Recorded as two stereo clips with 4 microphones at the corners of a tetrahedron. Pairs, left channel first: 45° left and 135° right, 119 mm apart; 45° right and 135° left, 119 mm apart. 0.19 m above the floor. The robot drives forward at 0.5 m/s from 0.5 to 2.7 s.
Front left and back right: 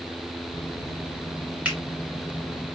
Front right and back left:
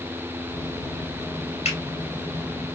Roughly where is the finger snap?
Ahead right.